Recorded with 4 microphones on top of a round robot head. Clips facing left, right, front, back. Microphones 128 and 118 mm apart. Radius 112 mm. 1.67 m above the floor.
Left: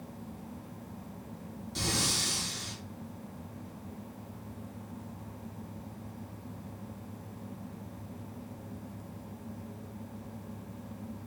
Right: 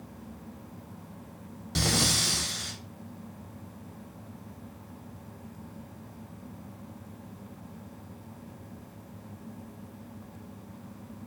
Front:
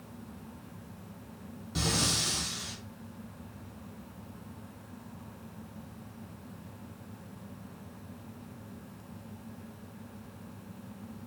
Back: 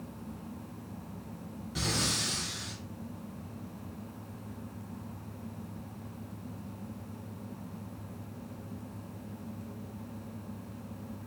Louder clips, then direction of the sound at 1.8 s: Right 6 dB, front 2 dB; 70° right.